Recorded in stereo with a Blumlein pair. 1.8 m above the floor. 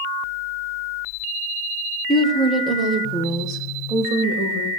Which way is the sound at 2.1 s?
5° left.